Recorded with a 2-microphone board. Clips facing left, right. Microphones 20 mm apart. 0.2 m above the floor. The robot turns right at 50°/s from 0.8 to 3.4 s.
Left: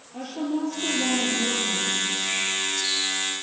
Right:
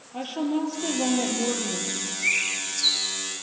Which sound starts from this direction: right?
A bird, at 2.2 s.